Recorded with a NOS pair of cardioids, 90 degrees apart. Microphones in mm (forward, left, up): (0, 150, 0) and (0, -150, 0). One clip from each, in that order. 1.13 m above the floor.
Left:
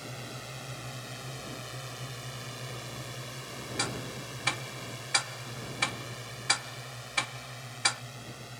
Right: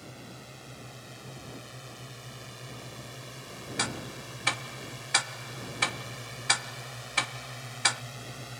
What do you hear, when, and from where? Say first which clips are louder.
0.0 s a drone: left 5 dB; 45° left; by 8.6 s 25° right
3.8 s ticking: right 2 dB; 15° right